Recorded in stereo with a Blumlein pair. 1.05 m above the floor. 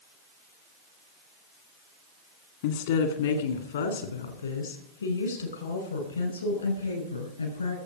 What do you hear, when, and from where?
2.6 s a woman speaking: 55° left, 2 m; by 7.8 s 80° left, 6.5 m